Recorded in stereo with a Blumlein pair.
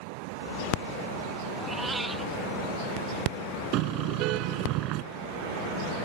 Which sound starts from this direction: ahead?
A cat meowing, at 1.6 s.